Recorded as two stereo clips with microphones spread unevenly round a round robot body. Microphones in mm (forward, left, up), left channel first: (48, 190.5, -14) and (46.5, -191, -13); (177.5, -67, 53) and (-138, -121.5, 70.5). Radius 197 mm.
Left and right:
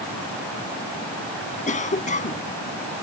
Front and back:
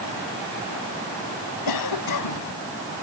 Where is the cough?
20° left.